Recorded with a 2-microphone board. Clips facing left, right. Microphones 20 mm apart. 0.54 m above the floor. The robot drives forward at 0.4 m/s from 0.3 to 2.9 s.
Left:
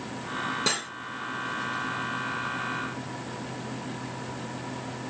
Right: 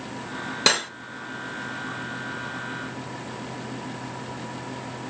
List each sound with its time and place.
0.7 s cutlery clinking: 70° right (ahead or behind), 1.0 m; by 0.9 s 75° right (ahead or behind), 1.0 m